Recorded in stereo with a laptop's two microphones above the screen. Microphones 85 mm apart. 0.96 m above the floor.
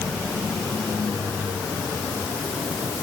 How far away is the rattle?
No rattle in this recording.